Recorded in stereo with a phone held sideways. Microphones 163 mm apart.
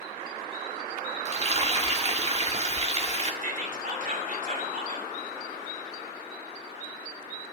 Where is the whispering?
55° right (ahead or behind), 2.5 m.